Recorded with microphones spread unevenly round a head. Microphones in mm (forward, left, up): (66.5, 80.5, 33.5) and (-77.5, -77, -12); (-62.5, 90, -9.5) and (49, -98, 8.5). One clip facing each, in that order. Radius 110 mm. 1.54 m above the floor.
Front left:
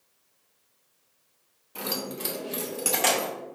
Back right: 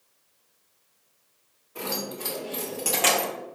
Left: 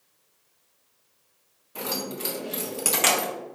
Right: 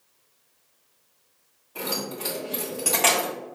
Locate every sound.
1.8 s keys jangling: 65° left, 1.2 m; by 3.3 s 165° right, 0.6 m